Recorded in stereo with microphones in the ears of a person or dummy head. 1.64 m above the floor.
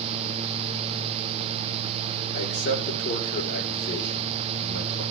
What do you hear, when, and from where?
2.3 s a man speaking: 60° left (ahead or behind), 5.5 m